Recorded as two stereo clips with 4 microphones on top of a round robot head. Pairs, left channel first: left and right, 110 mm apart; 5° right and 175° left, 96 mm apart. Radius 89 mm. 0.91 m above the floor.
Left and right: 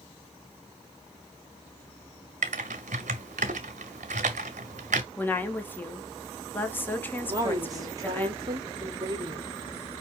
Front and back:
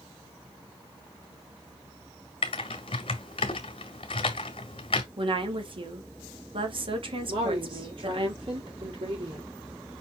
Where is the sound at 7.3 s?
150° right, 2.5 m.